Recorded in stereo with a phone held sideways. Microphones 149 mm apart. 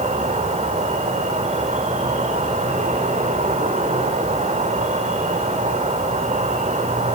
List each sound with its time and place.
0.0 s an insect: 55° right (ahead or behind), 5.5 m